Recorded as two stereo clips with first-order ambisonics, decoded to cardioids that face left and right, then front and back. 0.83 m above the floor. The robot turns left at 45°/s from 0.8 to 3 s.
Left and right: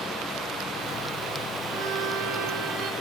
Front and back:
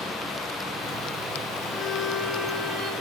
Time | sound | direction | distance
1.7 | a violin | 65° right | 1.8 m